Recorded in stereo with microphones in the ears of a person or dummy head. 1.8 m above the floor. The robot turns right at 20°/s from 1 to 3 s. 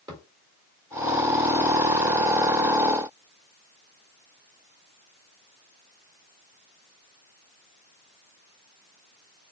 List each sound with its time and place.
0.1 s a thud: 20° right (ahead or behind), 1.7 m